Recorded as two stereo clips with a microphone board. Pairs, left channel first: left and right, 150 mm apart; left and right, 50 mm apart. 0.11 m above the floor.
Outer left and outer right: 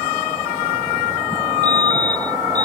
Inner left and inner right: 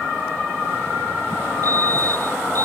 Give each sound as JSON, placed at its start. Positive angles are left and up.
{"t": 1.6, "sound": "a fire alarm", "side_deg": -85}